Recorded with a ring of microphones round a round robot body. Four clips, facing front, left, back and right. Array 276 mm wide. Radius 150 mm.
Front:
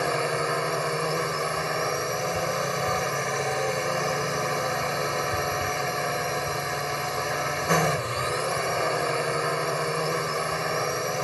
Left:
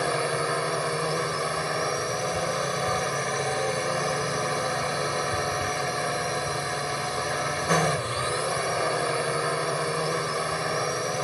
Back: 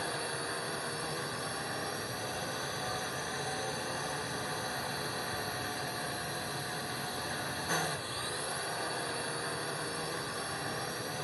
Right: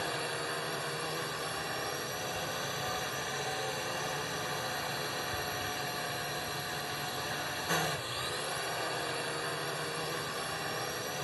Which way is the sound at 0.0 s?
40° left.